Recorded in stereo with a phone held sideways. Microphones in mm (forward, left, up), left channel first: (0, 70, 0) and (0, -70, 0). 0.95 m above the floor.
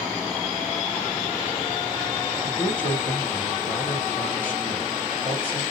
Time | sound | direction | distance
2.4 | a man speaking | 10° left (ahead or behind) | 1.5 m